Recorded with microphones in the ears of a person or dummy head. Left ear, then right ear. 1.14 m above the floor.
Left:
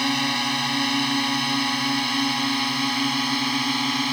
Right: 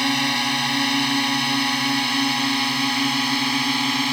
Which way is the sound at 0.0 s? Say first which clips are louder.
Right 2 dB; 5° right (ahead or behind).